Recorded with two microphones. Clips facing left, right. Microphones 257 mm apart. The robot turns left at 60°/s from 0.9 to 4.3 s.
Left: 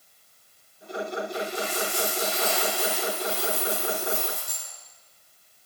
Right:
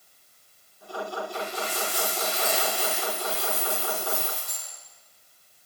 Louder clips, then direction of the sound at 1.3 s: Left 3 dB; 60° right.